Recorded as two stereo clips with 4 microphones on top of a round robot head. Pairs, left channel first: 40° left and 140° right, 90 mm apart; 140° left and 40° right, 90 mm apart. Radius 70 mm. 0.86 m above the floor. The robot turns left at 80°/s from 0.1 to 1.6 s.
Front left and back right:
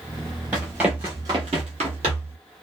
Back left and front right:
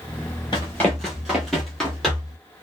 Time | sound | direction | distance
0.5 | running footsteps | 155° left | 0.9 m